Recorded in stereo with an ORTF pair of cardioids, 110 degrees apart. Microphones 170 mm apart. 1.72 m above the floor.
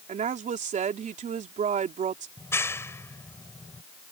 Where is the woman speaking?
45° right.